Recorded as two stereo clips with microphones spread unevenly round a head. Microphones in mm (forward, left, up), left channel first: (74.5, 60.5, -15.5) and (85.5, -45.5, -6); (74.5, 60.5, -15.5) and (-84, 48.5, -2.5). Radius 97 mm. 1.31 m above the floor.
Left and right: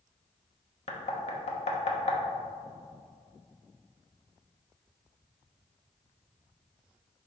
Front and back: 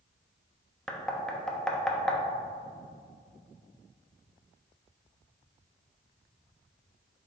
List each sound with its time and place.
0.9 s knocking: 90° left, 1.1 m